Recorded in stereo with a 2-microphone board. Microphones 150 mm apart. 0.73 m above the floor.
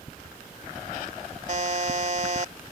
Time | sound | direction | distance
1.5 | a buzzer | 55° right (ahead or behind) | ?